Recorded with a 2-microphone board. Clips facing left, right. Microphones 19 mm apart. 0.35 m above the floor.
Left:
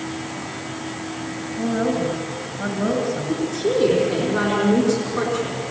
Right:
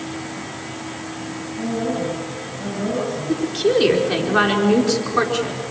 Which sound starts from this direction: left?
A woman speaking, at 1.6 s.